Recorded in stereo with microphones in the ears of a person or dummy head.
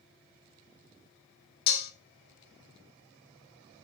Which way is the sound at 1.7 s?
60° left (ahead or behind).